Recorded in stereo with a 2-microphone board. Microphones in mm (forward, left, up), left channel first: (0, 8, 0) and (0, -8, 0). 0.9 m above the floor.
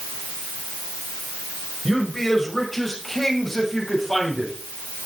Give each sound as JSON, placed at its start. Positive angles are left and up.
{"t": 1.9, "sound": "a man speaking", "side_deg": 15, "distance_m": 4.0}